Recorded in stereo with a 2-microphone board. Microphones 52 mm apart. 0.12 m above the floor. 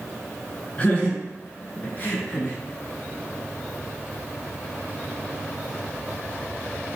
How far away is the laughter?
About 1.1 m.